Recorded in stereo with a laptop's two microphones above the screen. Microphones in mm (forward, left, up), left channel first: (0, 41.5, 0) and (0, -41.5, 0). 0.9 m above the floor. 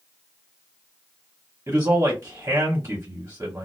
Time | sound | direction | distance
1.7 | a man speaking | 35° right (ahead or behind) | 0.9 m